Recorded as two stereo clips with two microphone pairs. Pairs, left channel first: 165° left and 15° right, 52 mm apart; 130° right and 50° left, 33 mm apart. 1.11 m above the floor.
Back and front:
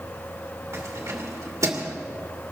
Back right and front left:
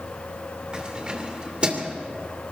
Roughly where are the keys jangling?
Ahead.